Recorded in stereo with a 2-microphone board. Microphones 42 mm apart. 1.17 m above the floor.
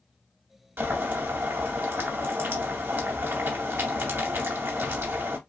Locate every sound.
0.8 s boiling: 65° right (ahead or behind), 2.5 m